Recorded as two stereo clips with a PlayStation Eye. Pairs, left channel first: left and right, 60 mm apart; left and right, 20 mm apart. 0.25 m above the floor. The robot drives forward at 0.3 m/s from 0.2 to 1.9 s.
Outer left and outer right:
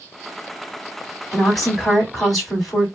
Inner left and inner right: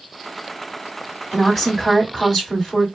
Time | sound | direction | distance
1.3 | a woman speaking | centre (ahead or behind) | 1.7 m